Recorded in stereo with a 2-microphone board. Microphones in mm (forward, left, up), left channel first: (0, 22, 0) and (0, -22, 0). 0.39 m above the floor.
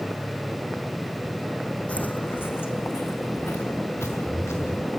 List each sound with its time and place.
1.9 s footsteps: 35° left (ahead or behind), 1.2 m; by 4.9 s 85° left, 4 m